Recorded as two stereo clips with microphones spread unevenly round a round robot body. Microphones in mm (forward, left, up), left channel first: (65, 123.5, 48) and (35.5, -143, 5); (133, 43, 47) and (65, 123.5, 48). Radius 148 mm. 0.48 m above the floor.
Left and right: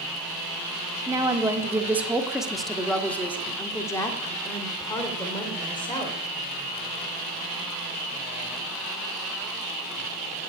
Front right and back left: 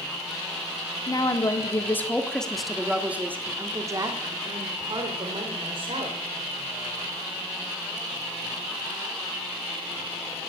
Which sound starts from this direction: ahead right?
A woman speaking, at 1.1 s.